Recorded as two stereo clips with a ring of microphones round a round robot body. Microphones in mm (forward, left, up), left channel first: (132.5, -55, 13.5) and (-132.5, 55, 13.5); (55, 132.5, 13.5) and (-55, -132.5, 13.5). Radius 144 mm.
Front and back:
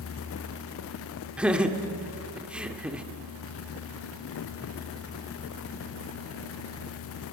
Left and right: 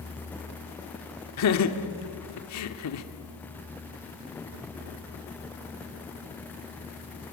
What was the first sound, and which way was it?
Laughter, 70° left.